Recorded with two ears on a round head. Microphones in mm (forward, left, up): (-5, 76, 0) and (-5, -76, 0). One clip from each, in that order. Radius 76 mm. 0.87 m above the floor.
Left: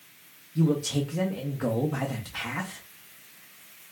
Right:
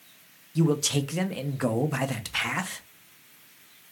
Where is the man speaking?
60° right (ahead or behind), 0.5 m.